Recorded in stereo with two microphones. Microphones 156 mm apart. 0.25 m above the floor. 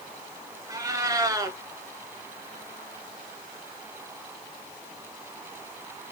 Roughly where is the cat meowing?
Right.